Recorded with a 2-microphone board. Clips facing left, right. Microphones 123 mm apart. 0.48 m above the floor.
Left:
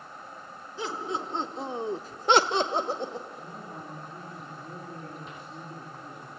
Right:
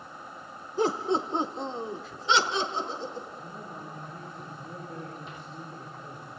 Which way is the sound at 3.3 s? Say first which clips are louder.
Even; 25° left (ahead or behind).